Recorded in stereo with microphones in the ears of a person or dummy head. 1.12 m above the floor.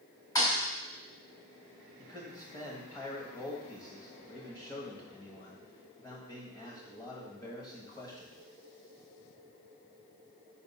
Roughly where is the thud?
Centre.